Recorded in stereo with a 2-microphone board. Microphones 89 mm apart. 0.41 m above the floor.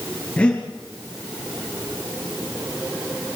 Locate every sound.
0.4 s breathing: 15° left (ahead or behind), 6.5 m